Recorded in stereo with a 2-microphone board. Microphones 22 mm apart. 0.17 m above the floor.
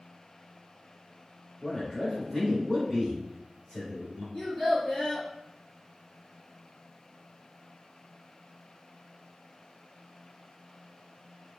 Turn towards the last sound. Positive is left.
turn(degrees=55)  # may be behind; listen again after turning